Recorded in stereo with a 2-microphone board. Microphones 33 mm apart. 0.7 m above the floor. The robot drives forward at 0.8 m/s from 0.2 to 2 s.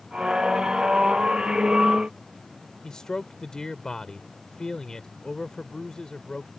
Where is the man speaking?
20° left (ahead or behind).